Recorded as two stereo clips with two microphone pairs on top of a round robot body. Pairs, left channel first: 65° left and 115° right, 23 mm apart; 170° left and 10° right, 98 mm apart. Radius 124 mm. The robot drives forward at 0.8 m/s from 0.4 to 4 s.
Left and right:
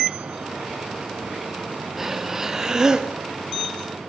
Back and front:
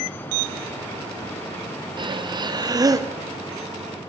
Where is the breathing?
35° right, 2.5 m; by 3.1 s 55° right, 1.8 m.